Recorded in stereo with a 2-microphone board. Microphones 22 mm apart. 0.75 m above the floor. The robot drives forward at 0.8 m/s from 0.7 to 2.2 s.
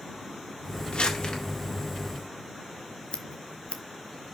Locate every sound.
0.9 s crumpling: 55° left (ahead or behind), 1.7 m; by 1.4 s 50° left (ahead or behind), 1.9 m
3.1 s scissors: 65° left (ahead or behind), 1.0 m